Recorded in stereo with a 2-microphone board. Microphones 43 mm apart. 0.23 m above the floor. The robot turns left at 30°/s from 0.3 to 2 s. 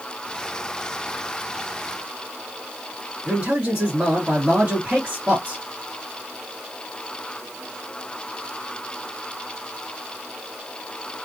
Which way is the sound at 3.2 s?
35° right (ahead or behind).